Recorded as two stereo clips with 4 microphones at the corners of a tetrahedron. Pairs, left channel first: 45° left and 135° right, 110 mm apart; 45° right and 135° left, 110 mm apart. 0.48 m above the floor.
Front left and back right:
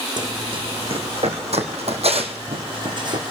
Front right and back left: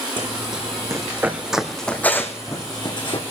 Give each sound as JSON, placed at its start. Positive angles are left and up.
{"t": 0.2, "sound": "running footsteps", "azimuth_deg": 180, "distance_m": 2.5}